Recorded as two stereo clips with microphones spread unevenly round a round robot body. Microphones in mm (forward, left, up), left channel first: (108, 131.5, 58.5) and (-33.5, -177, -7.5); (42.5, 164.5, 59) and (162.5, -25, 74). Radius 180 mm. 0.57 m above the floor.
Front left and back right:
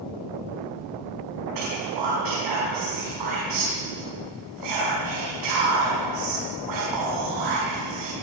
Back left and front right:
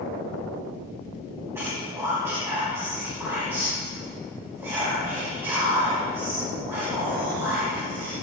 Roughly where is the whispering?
Behind right.